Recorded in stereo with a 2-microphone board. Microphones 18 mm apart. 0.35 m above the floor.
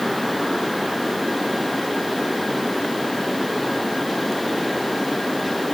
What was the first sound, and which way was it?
Only background noise.